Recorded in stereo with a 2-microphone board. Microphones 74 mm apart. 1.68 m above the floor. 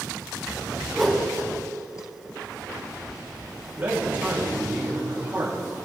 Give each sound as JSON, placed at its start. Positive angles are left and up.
{"t": 0.9, "sound": "a whoosh", "side_deg": 0, "distance_m": 1.8}
{"t": 3.8, "sound": "a man speaking", "side_deg": -25, "distance_m": 4.5}